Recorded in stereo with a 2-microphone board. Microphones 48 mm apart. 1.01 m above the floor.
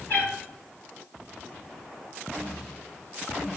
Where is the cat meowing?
55° left (ahead or behind), 3.5 m.